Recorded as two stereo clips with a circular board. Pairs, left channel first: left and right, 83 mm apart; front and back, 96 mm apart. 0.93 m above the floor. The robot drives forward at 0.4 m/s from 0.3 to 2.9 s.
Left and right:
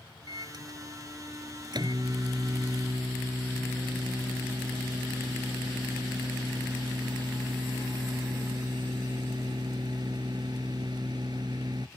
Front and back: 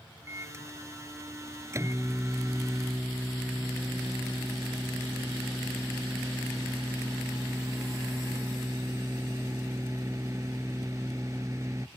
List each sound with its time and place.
0.3 s a microwave: 120° right